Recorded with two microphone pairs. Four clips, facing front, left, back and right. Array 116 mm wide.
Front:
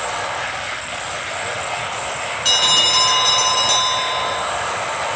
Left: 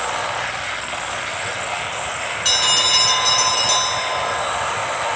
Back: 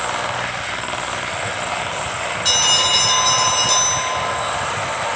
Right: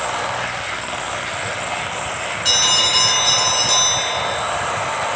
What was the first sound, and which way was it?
A bell, 35° left.